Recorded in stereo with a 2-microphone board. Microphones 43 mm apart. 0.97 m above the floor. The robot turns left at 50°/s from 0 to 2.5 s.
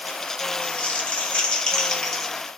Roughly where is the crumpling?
Left.